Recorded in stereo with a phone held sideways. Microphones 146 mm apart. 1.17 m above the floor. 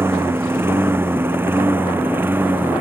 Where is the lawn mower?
15° right (ahead or behind).